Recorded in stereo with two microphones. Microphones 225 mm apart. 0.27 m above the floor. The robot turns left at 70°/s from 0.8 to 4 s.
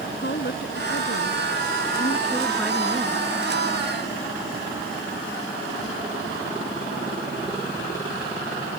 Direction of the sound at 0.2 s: 125° left.